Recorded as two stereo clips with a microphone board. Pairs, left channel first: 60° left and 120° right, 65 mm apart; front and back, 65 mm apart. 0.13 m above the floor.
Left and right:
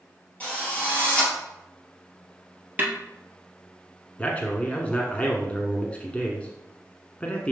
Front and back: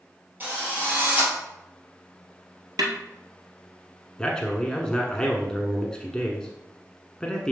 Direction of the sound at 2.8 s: Straight behind.